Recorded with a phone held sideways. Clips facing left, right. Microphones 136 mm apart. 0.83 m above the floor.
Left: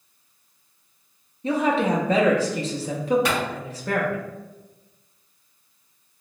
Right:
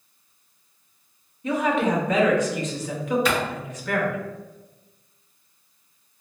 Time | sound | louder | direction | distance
1.4 | a woman speaking | left 1 dB | 35° left (ahead or behind) | 0.8 m
3.2 | a clap | right 1 dB | 85° left | 2.0 m